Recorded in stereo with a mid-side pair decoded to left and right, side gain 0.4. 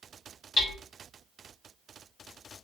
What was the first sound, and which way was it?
Hammering, 50° left.